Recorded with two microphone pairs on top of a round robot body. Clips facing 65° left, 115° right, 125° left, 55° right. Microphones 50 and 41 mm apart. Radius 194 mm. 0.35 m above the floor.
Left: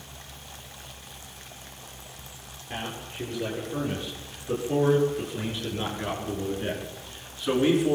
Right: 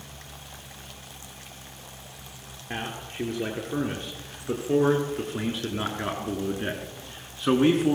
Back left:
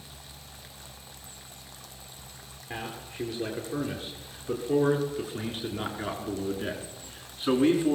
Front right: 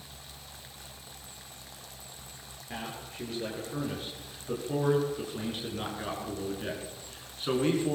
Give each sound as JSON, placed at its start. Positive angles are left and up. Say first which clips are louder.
{"t": 2.7, "sound": "a man speaking", "louder": "right 1 dB, back left 2 dB", "azimuth_deg": -160, "distance_m": 8.0}